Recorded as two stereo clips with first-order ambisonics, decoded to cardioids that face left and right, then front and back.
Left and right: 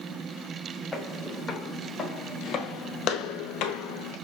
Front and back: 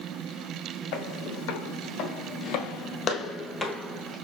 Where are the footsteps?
5° left, 1.9 m; by 4.2 s 100° left, 1.0 m.